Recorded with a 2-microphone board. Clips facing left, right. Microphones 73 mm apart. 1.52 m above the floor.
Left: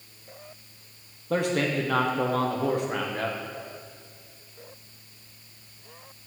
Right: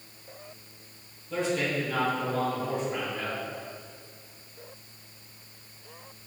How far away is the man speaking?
About 1.5 m.